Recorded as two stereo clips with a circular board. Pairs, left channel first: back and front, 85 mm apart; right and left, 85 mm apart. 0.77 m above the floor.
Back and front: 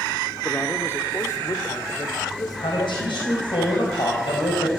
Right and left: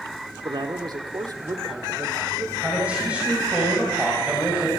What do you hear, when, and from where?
0.5 s a man speaking: 110° left, 1.7 m; by 3.4 s 145° left, 3.5 m
2.6 s a man speaking: 165° left, 4 m